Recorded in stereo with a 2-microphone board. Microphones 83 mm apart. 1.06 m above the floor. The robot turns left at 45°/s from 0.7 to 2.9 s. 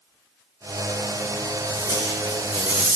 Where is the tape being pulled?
135° right, 6.5 m; by 3.0 s 170° left, 6.5 m.